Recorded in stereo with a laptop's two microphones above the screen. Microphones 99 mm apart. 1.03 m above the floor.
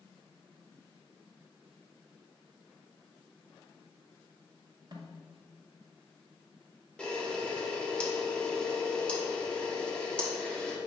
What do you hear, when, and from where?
4.9 s a snare drum: 40° right (ahead or behind), 1.2 m
7.0 s a camera shutter: 10° left (ahead or behind), 1.2 m